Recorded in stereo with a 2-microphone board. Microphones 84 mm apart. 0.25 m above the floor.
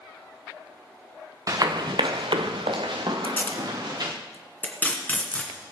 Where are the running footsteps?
45° right (ahead or behind), 1.4 m; by 4.1 s 50° right (ahead or behind), 2.5 m.